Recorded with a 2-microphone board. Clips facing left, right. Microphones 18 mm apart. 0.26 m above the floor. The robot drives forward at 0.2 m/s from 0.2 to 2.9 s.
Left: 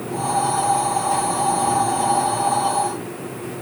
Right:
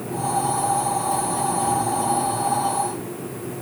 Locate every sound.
Only background noise.